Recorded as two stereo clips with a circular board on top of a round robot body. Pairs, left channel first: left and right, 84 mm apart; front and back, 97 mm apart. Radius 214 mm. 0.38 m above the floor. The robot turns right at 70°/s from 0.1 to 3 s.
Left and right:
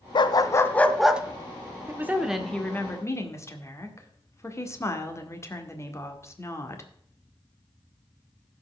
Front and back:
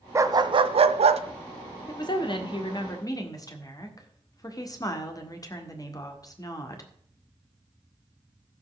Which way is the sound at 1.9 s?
35° right.